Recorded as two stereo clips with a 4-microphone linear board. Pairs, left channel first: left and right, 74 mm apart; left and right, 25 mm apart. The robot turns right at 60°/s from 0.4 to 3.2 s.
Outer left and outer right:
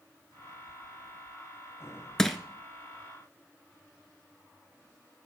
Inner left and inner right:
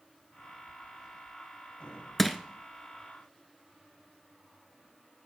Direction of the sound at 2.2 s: 10° left (ahead or behind).